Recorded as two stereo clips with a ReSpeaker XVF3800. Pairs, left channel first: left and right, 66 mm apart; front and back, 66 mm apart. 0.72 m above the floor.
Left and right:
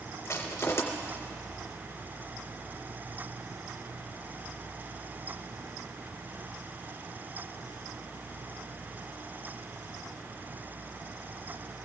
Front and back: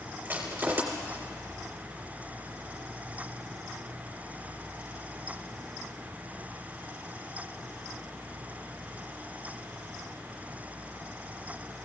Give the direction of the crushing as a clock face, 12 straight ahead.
8 o'clock.